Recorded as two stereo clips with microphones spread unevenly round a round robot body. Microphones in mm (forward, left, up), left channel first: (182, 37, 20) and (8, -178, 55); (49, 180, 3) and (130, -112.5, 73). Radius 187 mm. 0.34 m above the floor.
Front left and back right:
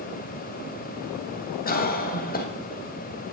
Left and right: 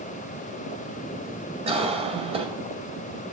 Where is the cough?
5° left, 2 m.